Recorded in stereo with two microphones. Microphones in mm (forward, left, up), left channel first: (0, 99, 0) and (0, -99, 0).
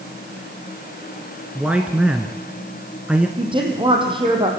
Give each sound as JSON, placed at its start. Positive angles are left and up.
{"t": 1.6, "sound": "a man speaking", "side_deg": -5, "distance_m": 1.2}
{"t": 3.4, "sound": "a woman speaking", "side_deg": -25, "distance_m": 4.0}